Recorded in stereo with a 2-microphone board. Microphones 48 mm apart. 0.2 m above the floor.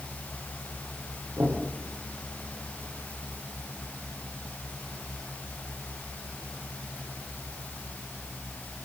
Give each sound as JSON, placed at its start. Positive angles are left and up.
{"t": 1.4, "sound": "knocking", "side_deg": -65, "distance_m": 9.0}